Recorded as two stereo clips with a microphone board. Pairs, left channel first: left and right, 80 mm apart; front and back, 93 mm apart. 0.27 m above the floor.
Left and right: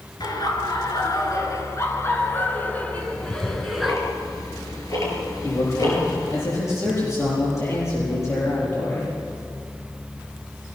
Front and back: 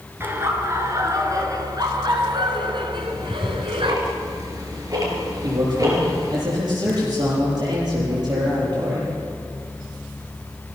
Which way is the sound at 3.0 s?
130° left.